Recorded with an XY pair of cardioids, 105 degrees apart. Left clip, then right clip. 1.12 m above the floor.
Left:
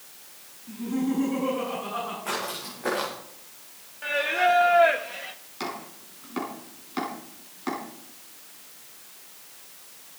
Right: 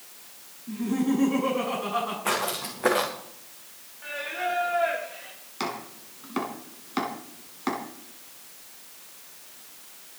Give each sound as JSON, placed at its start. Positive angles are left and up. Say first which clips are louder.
{"t": 0.7, "sound": "laughter", "louder": "right 2 dB", "azimuth_deg": -30, "distance_m": 9.0}
{"t": 2.2, "sound": "footsteps", "louder": "right 4 dB", "azimuth_deg": -55, "distance_m": 5.5}
{"t": 4.0, "sound": "singing", "louder": "left 8 dB", "azimuth_deg": 55, "distance_m": 1.2}
{"t": 5.6, "sound": "chopping", "louder": "right 2 dB", "azimuth_deg": -25, "distance_m": 4.0}